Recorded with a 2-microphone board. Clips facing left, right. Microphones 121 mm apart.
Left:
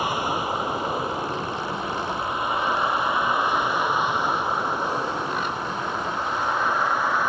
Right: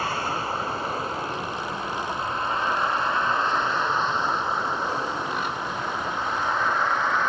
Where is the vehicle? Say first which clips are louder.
Left 2 dB; 15° left (ahead or behind); by 7.3 s 10° left (ahead or behind).